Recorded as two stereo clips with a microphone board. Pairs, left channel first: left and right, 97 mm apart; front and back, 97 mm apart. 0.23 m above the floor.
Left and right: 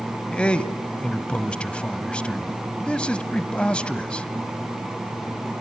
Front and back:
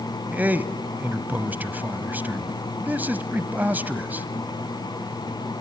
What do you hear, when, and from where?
0.3 s a man speaking: 145° left, 1.1 m